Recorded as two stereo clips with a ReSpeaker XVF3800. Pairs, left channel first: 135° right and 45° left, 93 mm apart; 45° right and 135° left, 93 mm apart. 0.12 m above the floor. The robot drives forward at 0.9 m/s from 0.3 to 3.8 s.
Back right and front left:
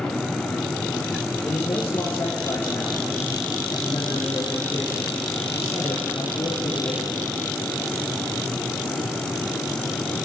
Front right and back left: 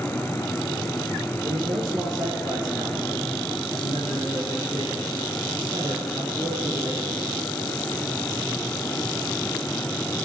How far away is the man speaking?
About 2.5 m.